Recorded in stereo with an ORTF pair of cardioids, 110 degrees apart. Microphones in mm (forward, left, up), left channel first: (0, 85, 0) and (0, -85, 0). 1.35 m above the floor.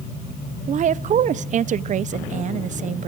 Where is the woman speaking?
45° right, 0.6 m.